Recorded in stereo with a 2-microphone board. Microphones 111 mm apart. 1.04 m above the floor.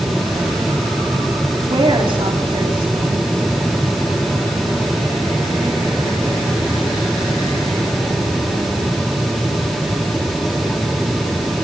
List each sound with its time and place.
1.7 s a woman speaking: 50° right (ahead or behind), 3 m